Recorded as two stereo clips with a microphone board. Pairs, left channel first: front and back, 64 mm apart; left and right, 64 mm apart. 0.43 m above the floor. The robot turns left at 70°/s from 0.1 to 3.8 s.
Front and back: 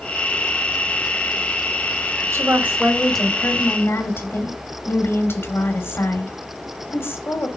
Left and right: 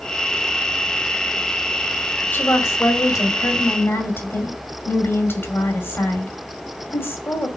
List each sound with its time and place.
2.3 s a woman speaking: 145° left, 2.5 m; by 7.5 s 40° left, 2.5 m